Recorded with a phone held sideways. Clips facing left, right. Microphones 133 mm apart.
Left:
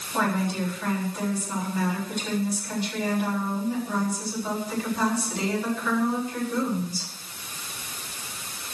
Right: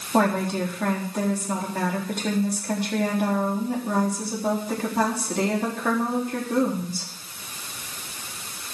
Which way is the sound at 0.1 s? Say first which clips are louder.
Right 4 dB; 60° right (ahead or behind).